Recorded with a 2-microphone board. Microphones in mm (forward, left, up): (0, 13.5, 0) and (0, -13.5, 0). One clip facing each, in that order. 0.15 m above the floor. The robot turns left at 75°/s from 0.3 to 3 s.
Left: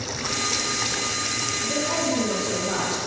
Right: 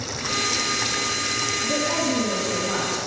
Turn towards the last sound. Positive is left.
turn(degrees=125)